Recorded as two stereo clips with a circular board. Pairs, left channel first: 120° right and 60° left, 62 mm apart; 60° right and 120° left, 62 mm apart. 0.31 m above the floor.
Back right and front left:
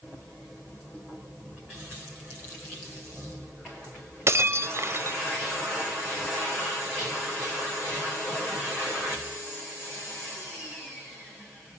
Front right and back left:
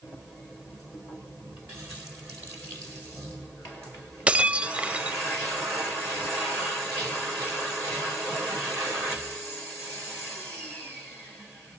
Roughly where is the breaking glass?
Ahead left.